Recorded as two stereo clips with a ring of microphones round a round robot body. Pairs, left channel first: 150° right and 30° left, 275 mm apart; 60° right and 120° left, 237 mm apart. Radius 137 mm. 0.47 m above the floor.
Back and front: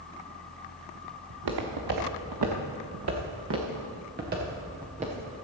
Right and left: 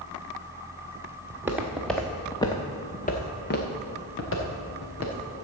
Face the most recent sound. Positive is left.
turn(degrees=-35)